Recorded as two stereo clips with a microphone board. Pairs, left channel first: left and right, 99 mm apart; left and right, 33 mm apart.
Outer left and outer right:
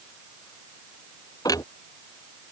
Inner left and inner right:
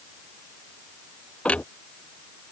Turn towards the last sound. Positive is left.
turn(degrees=40)  # may be behind; listen again after turning